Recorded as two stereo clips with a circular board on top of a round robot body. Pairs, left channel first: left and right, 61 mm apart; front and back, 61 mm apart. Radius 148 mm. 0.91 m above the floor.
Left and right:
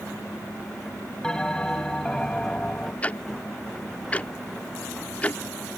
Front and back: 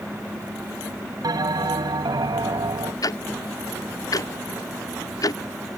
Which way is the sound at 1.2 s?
170° left.